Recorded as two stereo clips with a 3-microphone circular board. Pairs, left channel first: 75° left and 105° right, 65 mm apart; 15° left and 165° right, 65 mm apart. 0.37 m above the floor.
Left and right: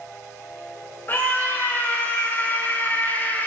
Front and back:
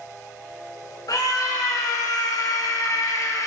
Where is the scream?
20° left, 5 m.